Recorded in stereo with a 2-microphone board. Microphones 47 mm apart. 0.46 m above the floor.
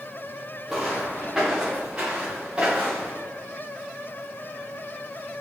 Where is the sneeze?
No sneeze in this recording.